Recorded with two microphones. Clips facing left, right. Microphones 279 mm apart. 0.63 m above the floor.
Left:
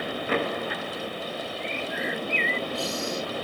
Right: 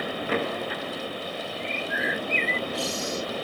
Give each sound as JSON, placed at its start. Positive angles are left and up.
{"t": 1.6, "sound": "a bird", "side_deg": -80}